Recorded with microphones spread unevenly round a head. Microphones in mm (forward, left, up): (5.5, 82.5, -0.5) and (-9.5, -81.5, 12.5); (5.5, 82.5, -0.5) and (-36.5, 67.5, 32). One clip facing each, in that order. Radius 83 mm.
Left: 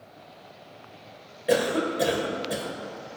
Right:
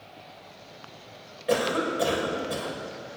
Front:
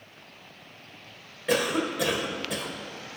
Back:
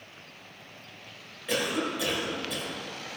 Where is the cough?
15° left, 1.9 m.